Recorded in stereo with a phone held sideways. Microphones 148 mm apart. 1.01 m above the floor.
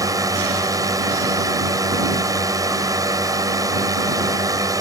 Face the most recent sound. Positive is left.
turn(degrees=-25)  # may be behind; listen again after turning